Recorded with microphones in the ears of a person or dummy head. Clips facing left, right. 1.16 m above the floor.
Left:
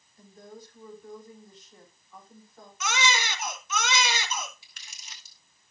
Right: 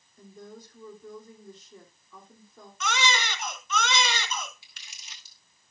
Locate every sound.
0.2 s a woman speaking: 85° right, 3 m
2.8 s a baby crying: 10° left (ahead or behind), 1.6 m
4.6 s crumpling: 40° left (ahead or behind), 1.3 m